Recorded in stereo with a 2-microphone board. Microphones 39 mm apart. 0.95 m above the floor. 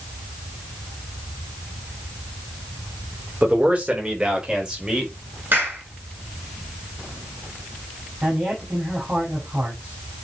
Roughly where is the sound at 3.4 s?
Right.